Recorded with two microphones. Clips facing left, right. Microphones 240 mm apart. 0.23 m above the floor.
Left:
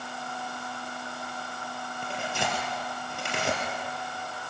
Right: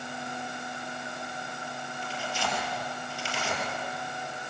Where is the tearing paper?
60° left (ahead or behind), 4.5 m.